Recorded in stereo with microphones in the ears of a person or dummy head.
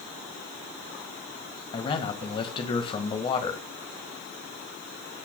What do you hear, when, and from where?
1.7 s a man speaking: 30° left (ahead or behind), 1.6 m